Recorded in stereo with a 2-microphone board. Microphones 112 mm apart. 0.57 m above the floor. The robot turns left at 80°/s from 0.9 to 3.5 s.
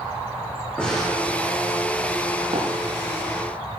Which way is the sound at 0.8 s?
10° left (ahead or behind).